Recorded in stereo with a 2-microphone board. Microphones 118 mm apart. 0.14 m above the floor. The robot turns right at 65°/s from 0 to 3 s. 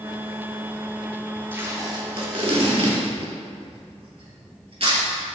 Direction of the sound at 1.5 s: 15° right (ahead or behind).